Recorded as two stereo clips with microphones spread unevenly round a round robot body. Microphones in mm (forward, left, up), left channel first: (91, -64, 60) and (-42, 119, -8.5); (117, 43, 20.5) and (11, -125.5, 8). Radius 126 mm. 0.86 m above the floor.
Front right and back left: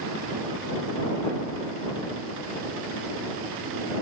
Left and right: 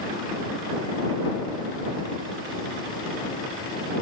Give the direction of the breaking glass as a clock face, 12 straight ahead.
No breaking glass in this recording.